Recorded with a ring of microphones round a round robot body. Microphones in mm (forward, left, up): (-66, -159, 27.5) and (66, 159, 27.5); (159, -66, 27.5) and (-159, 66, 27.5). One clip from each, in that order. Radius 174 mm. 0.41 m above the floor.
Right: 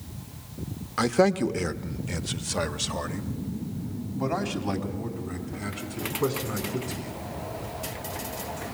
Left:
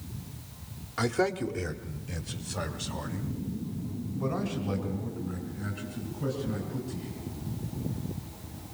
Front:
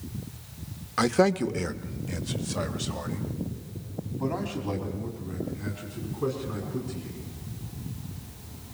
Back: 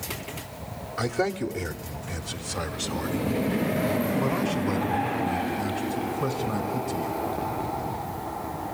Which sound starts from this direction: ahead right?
A man speaking, at 1.0 s.